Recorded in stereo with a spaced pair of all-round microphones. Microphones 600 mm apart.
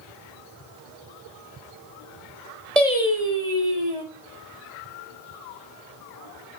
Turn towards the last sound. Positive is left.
turn(degrees=-70)  # may be behind; listen again after turning